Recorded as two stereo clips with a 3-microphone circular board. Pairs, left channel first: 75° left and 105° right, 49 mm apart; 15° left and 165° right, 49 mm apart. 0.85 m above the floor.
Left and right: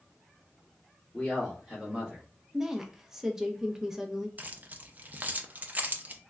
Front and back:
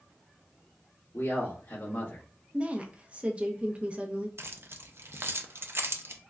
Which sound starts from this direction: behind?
A woman speaking, at 2.5 s.